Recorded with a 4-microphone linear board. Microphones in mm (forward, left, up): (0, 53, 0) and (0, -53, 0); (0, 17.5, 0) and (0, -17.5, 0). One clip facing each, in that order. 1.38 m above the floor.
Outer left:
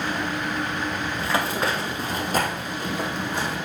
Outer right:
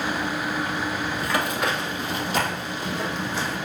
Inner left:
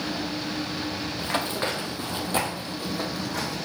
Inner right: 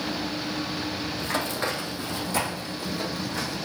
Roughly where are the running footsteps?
Left.